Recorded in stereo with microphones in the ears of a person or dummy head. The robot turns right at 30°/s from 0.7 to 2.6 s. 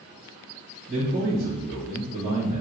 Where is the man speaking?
150° right, 1.3 m; by 2.6 s 100° right, 1.3 m.